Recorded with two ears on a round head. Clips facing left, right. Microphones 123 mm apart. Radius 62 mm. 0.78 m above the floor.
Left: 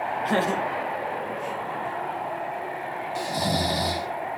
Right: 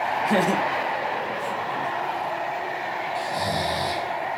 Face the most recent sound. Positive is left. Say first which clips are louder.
# left 1 dB
turn(degrees=20)  # may be behind; listen again after turning